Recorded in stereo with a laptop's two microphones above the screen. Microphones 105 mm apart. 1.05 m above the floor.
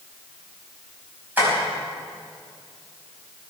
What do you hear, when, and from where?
1.4 s tapping: 20° right (ahead or behind), 5 m